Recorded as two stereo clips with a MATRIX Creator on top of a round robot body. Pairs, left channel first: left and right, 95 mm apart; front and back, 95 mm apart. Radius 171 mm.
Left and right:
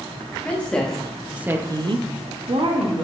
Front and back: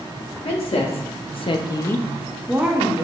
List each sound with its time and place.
0.5 s a woman speaking: 15° left, 1.3 m; by 3.0 s 120° right, 1.1 m